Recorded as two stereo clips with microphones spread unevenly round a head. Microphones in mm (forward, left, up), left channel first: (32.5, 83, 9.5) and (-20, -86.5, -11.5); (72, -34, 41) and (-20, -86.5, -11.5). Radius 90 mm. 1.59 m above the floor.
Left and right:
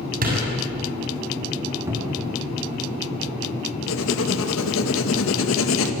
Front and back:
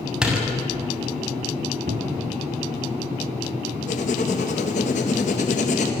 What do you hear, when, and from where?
0.2 s a door slam: 65° right, 6.5 m
1.9 s a cupboard door: 175° left, 3.5 m
3.9 s writing: 65° left, 2 m